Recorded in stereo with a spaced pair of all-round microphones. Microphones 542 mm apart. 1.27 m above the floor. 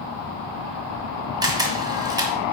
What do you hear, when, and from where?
1.4 s a camera shutter: 5° right (ahead or behind), 1.3 m